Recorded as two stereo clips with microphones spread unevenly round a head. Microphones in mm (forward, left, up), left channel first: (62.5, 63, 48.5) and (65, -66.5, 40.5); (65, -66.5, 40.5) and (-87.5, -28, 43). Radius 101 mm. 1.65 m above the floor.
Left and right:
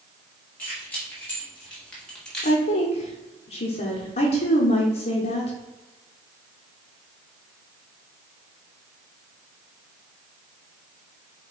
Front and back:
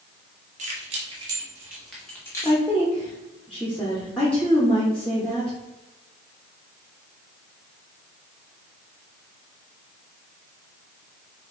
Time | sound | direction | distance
0.6 | keys jangling | 165° left | 1.1 m
2.4 | a woman speaking | 70° left | 0.8 m